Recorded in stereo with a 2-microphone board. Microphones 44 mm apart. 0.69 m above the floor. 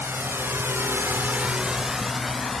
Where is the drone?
50° right (ahead or behind); by 2.6 s 5° left (ahead or behind).